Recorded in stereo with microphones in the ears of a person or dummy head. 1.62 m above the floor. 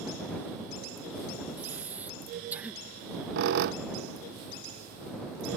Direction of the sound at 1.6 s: 10° right (ahead or behind).